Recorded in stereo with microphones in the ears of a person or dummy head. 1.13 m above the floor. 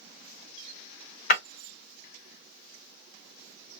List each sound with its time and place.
1.3 s breaking glass: 50° left (ahead or behind), 1.4 m